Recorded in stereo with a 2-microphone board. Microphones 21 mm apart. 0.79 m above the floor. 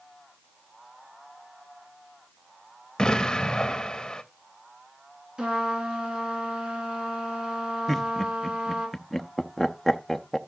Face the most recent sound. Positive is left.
turn(degrees=5)  # may be behind; listen again after turning